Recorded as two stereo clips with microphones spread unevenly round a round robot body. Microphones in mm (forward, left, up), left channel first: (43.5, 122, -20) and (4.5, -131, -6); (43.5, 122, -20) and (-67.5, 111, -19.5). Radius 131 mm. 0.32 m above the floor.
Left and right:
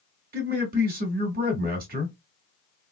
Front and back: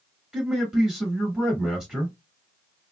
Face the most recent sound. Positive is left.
turn(degrees=-90)